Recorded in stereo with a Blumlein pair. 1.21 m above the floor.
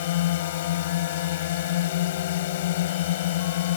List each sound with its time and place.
0.0 s a drone: 55° left